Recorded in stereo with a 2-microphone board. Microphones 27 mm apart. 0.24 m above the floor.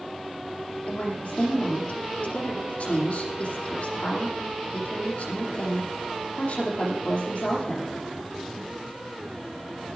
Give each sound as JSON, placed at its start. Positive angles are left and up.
{"t": 0.9, "sound": "a woman speaking", "side_deg": 55, "distance_m": 8.0}